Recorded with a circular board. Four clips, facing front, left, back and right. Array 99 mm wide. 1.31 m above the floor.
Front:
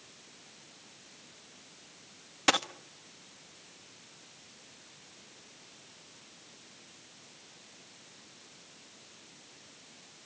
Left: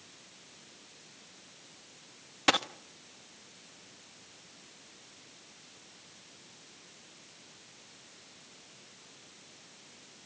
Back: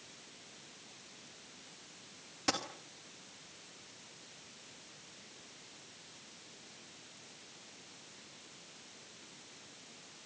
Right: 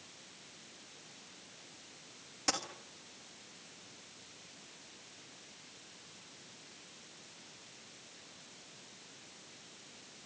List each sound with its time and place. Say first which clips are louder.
2.5 s a dropped coin: left 10 dB, front 8 dB; 45° left, 0.9 m